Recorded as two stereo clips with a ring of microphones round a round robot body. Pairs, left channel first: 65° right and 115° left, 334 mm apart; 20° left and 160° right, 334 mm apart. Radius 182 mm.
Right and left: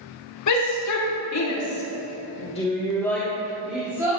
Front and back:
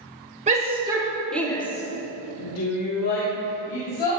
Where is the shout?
90° right, 2.5 m; by 4.2 s 30° left, 4 m.